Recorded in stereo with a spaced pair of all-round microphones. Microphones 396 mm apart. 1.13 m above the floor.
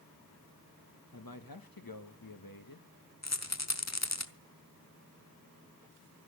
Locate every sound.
1.1 s a man speaking: 65° left (ahead or behind), 1.5 m
3.2 s a rattle: 45° left (ahead or behind), 1.0 m